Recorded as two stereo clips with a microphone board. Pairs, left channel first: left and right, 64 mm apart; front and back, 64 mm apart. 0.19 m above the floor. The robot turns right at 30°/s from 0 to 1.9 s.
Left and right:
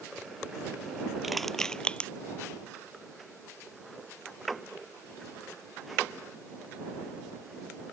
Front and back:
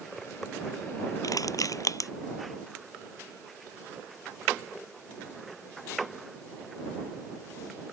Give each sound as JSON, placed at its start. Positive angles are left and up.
{"t": 1.2, "sound": "crushing", "azimuth_deg": -5}